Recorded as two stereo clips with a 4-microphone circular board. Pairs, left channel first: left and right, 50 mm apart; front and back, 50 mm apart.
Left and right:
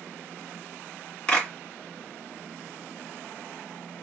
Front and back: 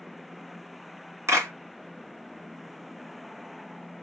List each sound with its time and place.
1.3 s a clap: 155° left, 2.5 m